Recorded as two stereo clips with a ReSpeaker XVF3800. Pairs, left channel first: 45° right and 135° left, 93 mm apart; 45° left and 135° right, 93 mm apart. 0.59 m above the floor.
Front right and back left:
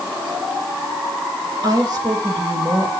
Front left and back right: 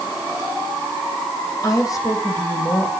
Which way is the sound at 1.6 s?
95° left.